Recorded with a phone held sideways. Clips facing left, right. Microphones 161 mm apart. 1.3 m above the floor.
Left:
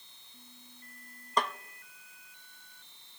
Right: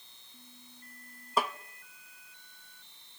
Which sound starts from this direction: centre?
A snare drum, at 1.4 s.